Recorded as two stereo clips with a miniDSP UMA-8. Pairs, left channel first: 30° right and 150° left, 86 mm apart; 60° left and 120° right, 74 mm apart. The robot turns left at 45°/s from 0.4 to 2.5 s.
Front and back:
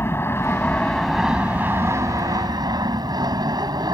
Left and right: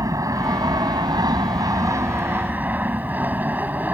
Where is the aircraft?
90° right; by 4.0 s 175° left.